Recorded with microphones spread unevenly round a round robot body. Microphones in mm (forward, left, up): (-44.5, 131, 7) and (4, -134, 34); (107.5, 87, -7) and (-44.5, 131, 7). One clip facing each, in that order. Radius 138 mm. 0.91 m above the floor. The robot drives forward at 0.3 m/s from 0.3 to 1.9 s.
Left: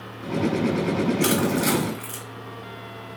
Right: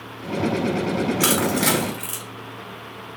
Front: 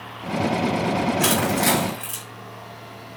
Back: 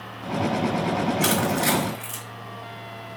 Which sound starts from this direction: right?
Crushing, at 1.2 s.